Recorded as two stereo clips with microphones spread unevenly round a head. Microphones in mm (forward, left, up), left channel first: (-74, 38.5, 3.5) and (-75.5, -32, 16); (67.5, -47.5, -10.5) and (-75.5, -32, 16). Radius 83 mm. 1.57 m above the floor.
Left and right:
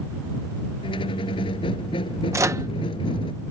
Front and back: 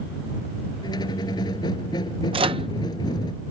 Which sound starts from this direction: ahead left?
A squeak, at 0.8 s.